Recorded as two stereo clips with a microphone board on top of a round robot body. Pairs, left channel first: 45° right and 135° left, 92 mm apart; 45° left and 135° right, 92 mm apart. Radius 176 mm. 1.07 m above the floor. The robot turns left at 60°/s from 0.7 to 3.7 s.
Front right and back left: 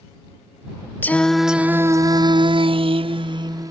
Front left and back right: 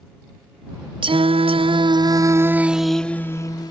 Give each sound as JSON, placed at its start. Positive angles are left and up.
{"t": 1.0, "sound": "singing", "azimuth_deg": -115}